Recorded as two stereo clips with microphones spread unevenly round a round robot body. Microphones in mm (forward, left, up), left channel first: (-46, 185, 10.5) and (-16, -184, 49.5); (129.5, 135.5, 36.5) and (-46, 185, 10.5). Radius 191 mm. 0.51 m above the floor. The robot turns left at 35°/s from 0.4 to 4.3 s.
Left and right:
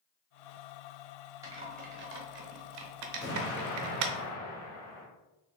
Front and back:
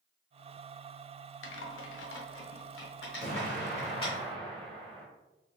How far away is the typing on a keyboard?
About 0.6 m.